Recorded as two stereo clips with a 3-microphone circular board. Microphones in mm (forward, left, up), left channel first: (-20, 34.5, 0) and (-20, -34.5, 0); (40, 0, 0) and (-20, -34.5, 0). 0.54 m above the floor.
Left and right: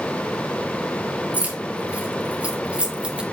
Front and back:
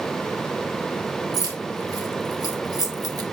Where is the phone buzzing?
No phone buzzing in this recording.